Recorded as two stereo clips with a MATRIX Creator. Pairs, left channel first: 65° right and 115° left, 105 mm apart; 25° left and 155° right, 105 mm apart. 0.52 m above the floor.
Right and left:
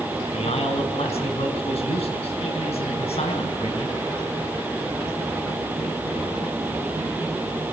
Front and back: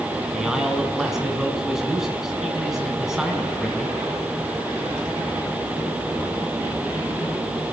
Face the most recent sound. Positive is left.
turn(degrees=-75)